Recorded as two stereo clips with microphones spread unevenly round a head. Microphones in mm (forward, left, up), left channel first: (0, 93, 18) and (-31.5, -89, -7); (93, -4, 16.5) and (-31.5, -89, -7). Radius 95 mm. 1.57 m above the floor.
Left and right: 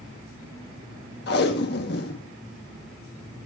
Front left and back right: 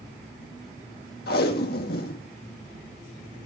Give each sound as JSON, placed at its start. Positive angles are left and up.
{"t": 1.3, "sound": "tape being pulled", "azimuth_deg": 50, "distance_m": 2.0}